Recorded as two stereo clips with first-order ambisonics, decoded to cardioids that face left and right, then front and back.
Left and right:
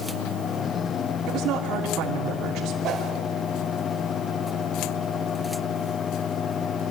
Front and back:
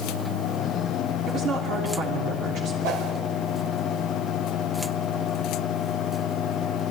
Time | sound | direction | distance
1.3 | a woman speaking | 130° right | 3 m
2.8 | a whoosh | 150° right | 4.5 m